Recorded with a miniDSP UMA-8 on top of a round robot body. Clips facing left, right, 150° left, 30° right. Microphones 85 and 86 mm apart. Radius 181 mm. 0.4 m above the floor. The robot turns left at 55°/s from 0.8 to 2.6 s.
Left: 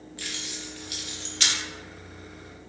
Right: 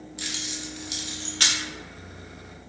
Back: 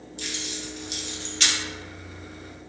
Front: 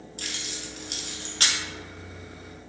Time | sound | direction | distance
0.2 | keys jangling | 20° right | 0.7 m